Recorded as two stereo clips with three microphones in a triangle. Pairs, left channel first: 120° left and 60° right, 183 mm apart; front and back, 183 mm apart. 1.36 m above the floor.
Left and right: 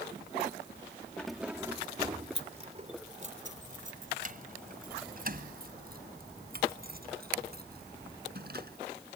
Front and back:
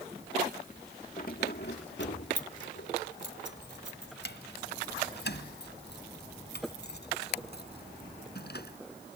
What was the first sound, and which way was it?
Keys jangling, 35° left.